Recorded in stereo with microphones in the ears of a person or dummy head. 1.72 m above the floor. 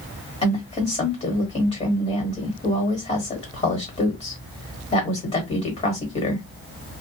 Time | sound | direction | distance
0.4 | a woman speaking | 30° left (ahead or behind) | 1.3 m